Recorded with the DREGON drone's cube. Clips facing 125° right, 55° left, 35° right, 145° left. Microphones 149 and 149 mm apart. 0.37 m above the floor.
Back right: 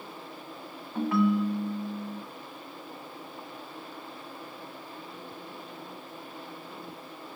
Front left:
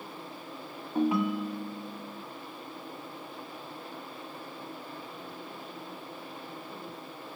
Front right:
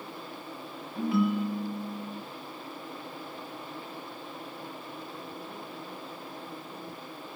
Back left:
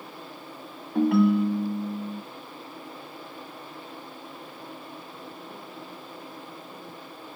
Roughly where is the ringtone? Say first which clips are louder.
Back right 2 dB, back left 7 dB; behind left.